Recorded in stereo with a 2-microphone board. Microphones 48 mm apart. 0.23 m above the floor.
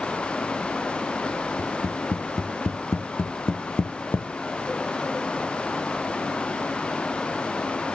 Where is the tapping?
75° left (ahead or behind), 0.8 m.